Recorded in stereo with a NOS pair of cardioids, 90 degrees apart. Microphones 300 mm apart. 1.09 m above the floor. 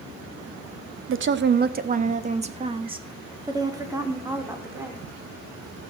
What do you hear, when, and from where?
1.1 s a woman speaking: 45° right, 1.0 m; by 5.0 s 5° right, 3 m